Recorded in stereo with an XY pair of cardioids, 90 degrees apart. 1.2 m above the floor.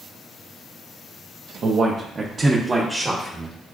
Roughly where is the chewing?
I don't hear chewing.